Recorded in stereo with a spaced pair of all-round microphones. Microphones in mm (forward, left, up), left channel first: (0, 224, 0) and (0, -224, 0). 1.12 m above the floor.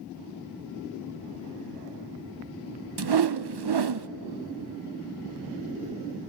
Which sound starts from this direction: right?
A whoosh, at 3.0 s.